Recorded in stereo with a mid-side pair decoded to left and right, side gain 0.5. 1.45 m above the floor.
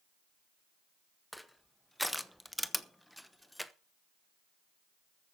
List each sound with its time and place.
1.3 s crushing: 5° left, 1.0 m